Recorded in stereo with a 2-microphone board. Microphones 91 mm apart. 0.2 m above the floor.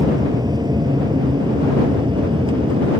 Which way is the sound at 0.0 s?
50° right (ahead or behind).